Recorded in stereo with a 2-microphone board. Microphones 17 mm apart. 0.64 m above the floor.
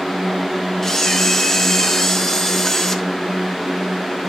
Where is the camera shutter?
20° left (ahead or behind), 1.2 m.